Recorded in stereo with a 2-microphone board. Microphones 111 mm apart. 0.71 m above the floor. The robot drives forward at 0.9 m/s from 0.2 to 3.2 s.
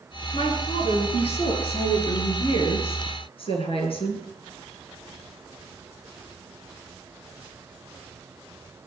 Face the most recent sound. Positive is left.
turn(degrees=55)  # may be behind; listen again after turning